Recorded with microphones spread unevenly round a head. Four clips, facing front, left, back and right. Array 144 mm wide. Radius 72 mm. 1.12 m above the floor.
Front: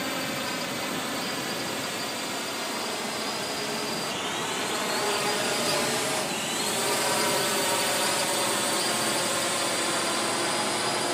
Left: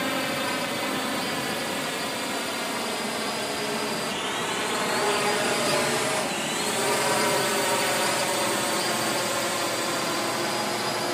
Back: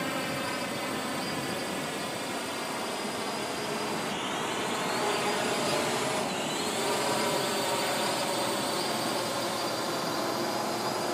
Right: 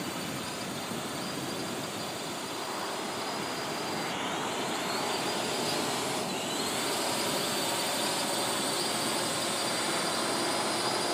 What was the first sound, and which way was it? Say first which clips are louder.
A drone: left 9 dB, front 1 dB; 80° left.